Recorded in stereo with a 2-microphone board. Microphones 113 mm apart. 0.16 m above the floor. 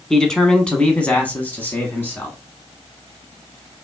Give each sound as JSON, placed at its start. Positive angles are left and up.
{"t": 0.1, "sound": "a man speaking", "side_deg": 5, "distance_m": 1.3}